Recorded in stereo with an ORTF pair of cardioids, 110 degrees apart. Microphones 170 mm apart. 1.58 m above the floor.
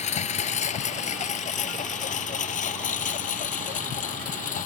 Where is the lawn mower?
45° left; by 4.7 s 50° left.